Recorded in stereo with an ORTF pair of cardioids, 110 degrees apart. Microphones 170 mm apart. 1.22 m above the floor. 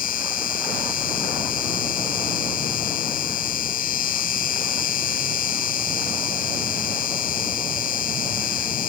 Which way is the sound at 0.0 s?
55° left.